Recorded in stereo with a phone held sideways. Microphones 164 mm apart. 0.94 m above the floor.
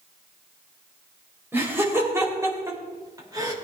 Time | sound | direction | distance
1.5 | laughter | 15° right (ahead or behind) | 4 m